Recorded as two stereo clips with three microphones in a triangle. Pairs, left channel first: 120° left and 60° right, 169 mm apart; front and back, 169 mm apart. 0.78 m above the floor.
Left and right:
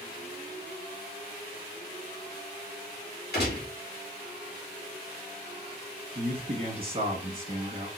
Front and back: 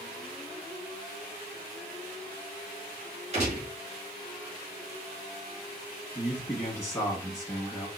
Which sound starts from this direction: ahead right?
A man speaking, at 6.2 s.